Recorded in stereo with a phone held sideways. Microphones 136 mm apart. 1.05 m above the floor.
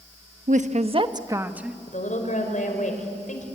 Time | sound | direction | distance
0.5 | a woman speaking | 70° right (ahead or behind) | 1.0 m
1.9 | a woman speaking | 65° left (ahead or behind) | 5 m